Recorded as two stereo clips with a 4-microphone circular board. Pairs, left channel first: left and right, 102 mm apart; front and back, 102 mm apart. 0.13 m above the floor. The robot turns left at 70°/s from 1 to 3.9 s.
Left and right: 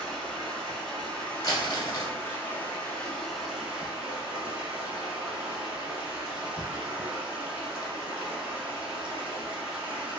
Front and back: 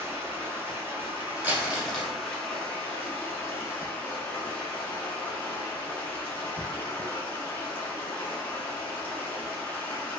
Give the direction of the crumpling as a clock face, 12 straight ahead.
8 o'clock.